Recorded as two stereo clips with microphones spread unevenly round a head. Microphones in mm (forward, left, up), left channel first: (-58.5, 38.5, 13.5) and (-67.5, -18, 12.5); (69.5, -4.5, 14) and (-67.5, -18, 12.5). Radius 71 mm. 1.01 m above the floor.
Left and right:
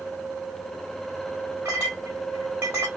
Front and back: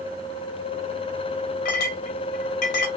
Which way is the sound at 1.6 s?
25° right.